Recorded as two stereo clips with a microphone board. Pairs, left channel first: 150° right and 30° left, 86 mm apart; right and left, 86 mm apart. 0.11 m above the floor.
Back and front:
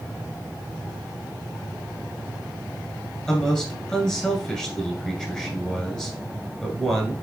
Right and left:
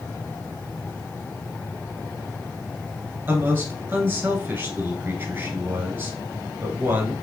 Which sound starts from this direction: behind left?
A man speaking, at 3.3 s.